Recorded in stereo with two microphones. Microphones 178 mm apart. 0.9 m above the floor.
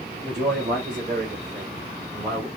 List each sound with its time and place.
0.2 s a man speaking: 45° right (ahead or behind), 1.8 m; by 2.5 s 55° right (ahead or behind), 3 m